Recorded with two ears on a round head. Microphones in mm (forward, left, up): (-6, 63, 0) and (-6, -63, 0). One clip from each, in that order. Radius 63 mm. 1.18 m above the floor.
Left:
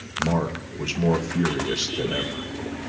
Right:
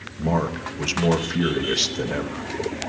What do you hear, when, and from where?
0.2 s a man speaking: 20° right (ahead or behind), 1.1 m